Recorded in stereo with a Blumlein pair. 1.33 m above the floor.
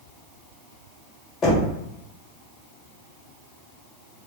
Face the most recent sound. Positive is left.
turn(degrees=25)